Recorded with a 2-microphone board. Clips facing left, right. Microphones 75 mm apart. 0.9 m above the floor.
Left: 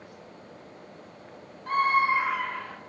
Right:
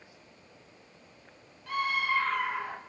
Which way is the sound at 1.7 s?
40° left (ahead or behind).